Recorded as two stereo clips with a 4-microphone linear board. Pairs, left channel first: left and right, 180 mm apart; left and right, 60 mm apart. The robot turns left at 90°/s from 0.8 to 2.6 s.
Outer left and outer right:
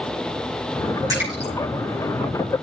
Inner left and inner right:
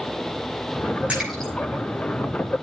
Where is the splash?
20° right (ahead or behind), 8 m; by 1.5 s 20° left (ahead or behind), 8 m.